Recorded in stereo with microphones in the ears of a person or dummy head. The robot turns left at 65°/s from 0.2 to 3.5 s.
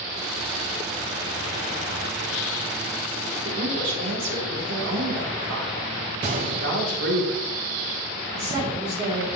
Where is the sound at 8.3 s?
30° right (ahead or behind), 2 m.